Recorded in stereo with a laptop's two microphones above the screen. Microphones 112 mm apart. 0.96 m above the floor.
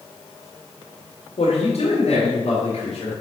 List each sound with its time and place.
1.4 s a man speaking: 65° left (ahead or behind), 1.9 m; by 3.1 s 55° left (ahead or behind), 3 m